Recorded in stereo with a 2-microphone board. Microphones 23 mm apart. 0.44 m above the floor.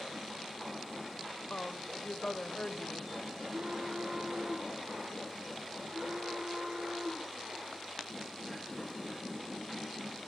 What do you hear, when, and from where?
1.5 s a woman speaking: 50° left (ahead or behind), 1.6 m
3.4 s an alarm: 75° right (ahead or behind), 8 m